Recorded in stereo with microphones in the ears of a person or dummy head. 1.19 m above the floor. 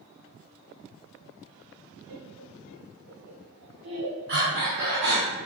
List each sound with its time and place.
2.1 s laughter: 55° right (ahead or behind), 1.4 m; by 4.2 s 85° right, 2.5 m
4.3 s breathing: 65° right (ahead or behind), 1.9 m